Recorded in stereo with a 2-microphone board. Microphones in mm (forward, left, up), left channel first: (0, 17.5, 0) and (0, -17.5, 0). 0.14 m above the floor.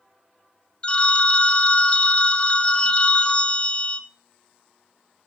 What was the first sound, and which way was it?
A phone ringing, 30° left (ahead or behind).